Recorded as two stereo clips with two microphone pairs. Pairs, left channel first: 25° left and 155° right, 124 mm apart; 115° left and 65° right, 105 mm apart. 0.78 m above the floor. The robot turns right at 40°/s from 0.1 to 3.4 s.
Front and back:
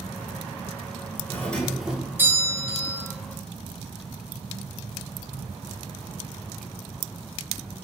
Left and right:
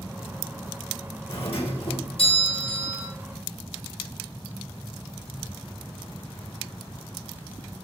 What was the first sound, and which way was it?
A doorbell, 95° left.